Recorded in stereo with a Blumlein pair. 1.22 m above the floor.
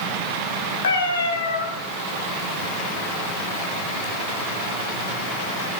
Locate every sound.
0.8 s a cat meowing: 70° left, 2 m